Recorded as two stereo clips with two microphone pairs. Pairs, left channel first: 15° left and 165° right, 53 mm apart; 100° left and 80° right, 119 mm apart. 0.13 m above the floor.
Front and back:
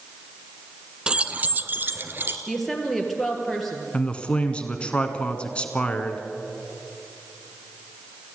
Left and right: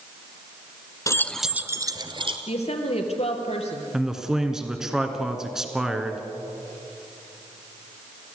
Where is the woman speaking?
100° left, 3 m.